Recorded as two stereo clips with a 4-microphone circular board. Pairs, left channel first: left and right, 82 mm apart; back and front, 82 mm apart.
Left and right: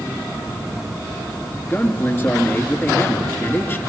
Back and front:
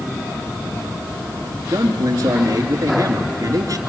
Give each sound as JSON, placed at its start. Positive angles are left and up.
{"t": 1.6, "sound": "a man speaking", "azimuth_deg": 30, "distance_m": 3.0}